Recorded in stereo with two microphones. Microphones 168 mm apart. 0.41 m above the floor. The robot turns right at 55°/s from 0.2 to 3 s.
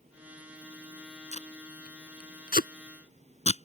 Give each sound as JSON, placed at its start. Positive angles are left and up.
{"t": 1.3, "sound": "tape being pulled", "side_deg": 45}